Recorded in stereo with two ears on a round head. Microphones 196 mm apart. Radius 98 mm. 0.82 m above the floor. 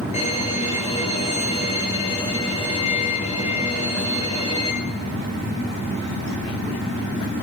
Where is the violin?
35° left (ahead or behind), 7 m.